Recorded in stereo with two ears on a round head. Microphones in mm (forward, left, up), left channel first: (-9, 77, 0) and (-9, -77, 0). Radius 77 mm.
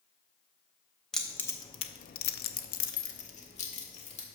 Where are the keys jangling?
5° left (ahead or behind), 0.9 m; by 4.2 s 40° left (ahead or behind), 1.8 m.